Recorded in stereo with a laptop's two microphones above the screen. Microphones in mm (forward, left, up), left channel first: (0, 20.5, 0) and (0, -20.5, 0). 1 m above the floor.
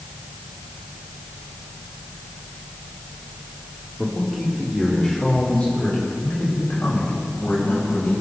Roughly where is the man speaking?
Centre.